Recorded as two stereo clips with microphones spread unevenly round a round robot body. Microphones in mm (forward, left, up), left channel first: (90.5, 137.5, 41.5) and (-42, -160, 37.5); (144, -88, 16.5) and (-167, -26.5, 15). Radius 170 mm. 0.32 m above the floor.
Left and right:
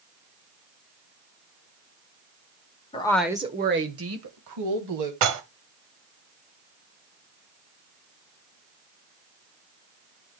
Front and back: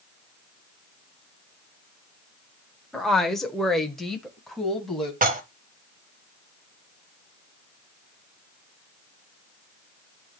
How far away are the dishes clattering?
About 1.3 m.